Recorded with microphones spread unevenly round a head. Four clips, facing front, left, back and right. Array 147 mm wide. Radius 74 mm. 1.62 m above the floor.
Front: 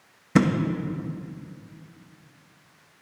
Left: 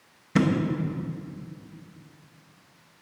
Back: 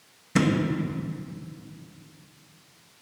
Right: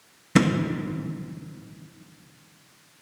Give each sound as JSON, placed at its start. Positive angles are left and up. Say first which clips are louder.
{"t": 0.3, "sound": "a thud", "louder": "right 2 dB, front 3 dB", "azimuth_deg": -45, "distance_m": 1.0}